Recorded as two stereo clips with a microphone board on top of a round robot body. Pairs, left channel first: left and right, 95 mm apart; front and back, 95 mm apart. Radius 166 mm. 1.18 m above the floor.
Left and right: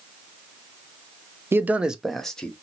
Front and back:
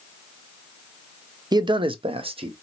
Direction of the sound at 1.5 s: 150° right.